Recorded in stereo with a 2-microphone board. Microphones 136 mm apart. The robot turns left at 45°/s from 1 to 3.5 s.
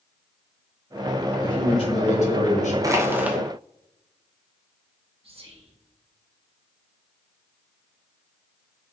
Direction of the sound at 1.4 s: 145° left.